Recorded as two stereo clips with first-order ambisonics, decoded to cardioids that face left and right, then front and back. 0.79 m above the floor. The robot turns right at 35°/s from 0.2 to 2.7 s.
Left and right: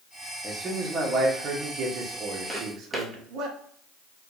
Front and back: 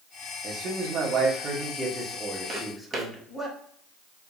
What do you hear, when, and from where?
0.4 s a man speaking: 165° right, 0.8 m; by 3.5 s 85° right, 0.8 m
2.5 s footsteps: 170° left, 0.8 m; by 3.1 s straight behind, 0.8 m